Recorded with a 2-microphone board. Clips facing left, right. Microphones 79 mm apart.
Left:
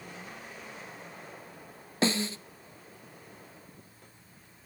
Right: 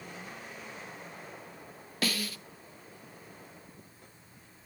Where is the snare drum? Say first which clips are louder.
Left 6 dB; 25° left (ahead or behind), 0.6 m.